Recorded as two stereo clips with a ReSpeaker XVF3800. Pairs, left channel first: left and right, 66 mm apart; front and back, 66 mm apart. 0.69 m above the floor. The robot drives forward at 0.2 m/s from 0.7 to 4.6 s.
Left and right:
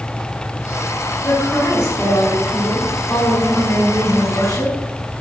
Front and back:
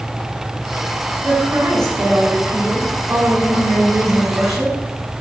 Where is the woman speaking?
135° left, 6 m; by 4.7 s 140° left, 6.5 m.